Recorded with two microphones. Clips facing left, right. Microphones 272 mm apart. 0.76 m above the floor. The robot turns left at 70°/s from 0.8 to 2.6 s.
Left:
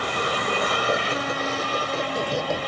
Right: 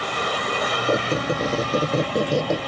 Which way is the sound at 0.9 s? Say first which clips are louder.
Right 4 dB; 35° right.